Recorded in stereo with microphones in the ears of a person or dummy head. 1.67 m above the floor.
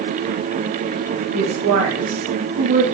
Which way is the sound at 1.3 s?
75° right (ahead or behind).